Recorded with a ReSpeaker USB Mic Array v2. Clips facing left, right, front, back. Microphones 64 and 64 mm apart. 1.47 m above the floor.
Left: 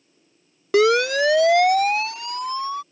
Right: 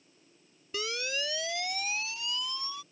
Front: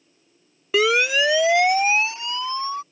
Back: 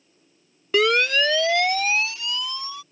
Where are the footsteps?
No footsteps in this recording.